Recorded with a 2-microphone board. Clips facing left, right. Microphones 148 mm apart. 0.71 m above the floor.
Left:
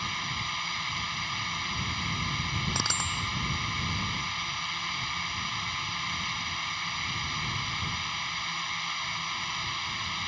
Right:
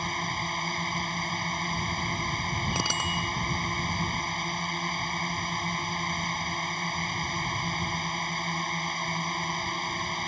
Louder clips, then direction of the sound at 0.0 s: Right 5 dB; 45° right (ahead or behind).